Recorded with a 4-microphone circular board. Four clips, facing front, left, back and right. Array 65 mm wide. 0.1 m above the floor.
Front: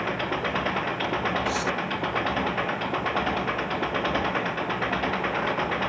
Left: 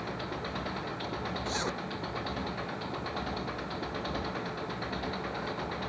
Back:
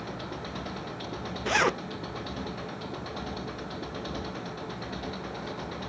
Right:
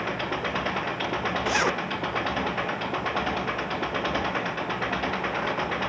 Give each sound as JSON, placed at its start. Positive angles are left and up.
{"t": 0.0, "sound": "an engine running", "azimuth_deg": -30}
{"t": 1.4, "sound": "a zipper", "azimuth_deg": -145}